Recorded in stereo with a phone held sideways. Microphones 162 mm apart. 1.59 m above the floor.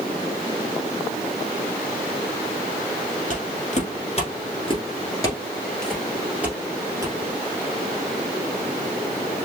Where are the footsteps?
55° left (ahead or behind), 2.5 m; by 7.2 s 25° right (ahead or behind), 2 m.